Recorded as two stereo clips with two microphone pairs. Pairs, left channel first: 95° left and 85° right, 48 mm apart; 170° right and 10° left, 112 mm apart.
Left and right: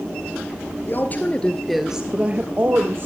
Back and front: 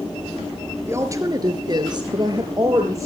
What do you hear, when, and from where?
0.9 s a woman speaking: 70° left, 1.7 m; by 3.1 s 50° right, 2.5 m